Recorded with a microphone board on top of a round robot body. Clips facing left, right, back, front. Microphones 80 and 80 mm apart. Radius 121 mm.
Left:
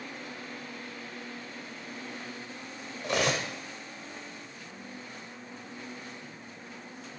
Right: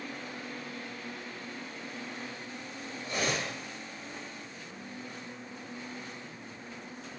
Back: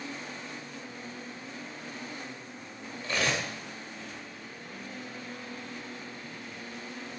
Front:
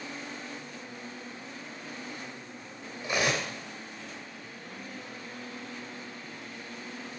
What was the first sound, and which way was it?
Cutlery clinking, 75° left.